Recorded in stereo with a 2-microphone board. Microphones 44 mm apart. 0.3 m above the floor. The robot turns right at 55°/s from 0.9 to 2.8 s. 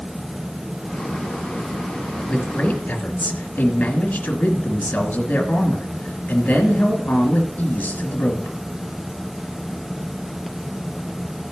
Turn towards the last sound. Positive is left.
turn(degrees=40)  # may be behind; listen again after turning